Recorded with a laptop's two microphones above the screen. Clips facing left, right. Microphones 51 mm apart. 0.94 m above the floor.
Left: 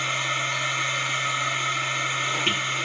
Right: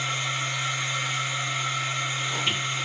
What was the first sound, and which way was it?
A machine running, 50° left (ahead or behind).